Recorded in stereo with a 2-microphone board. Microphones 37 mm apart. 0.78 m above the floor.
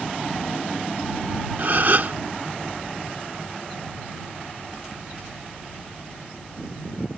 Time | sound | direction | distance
1.6 | a gasp | 55° right (ahead or behind) | ?